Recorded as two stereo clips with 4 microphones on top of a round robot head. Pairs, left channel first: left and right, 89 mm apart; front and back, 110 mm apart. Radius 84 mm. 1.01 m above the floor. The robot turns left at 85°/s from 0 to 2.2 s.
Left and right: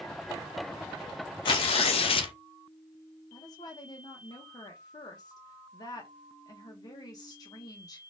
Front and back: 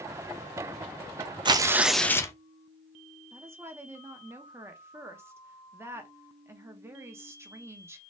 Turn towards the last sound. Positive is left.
turn(degrees=120)